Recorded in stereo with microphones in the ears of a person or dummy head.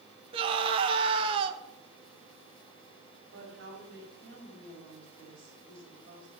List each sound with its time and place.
0.3 s a scream: 35° right (ahead or behind), 1.2 m
3.3 s a woman speaking: 70° right (ahead or behind), 5.5 m